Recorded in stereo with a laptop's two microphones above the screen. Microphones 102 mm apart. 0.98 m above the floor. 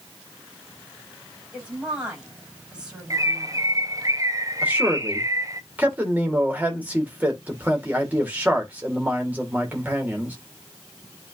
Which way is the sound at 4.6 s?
15° right (ahead or behind).